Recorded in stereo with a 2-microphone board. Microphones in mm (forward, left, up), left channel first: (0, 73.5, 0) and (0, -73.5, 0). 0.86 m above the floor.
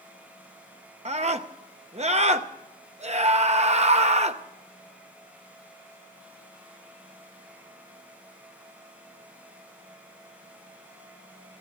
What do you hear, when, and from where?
1.1 s a scream: 50° right (ahead or behind), 0.7 m